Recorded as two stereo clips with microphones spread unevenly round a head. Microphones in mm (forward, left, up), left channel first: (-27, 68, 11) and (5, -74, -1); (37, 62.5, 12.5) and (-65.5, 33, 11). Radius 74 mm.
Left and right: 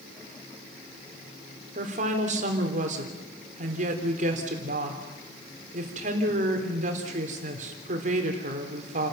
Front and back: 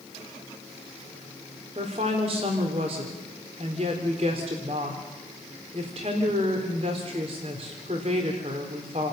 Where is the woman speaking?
115° right, 3.5 m.